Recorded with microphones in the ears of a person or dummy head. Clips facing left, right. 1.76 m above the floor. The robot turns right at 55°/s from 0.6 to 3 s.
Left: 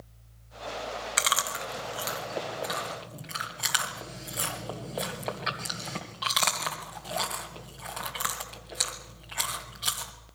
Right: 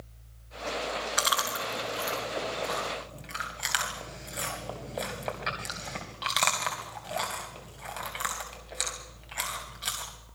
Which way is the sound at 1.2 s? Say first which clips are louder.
Right 2 dB; 40° left (ahead or behind).